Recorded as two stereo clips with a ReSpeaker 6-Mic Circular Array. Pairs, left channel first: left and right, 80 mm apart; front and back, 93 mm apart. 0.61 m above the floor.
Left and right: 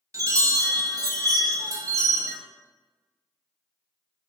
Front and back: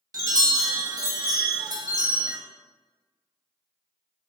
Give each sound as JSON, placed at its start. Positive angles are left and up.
{"t": 0.1, "sound": "a chime", "azimuth_deg": -135, "distance_m": 0.5}